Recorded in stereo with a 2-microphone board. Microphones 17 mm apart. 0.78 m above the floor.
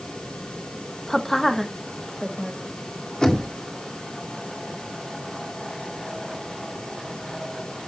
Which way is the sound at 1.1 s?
20° left (ahead or behind).